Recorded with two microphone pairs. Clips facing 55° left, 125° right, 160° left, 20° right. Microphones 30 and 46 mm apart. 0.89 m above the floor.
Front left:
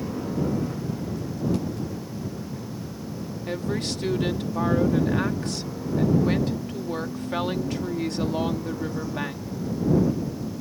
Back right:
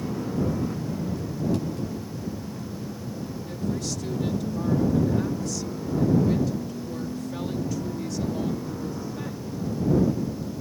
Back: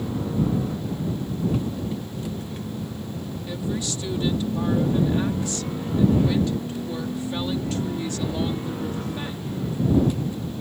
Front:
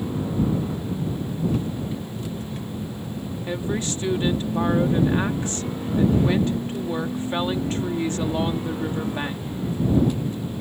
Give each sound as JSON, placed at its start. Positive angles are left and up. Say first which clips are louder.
{"t": 3.5, "sound": "a woman speaking", "louder": "front left 3 dB, front 2 dB", "azimuth_deg": 25}